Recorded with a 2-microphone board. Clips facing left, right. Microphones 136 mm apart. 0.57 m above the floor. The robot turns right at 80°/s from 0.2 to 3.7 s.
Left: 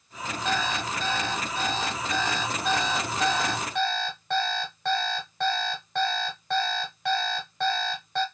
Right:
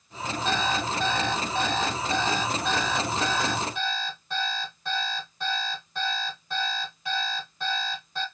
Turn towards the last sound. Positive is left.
turn(degrees=90)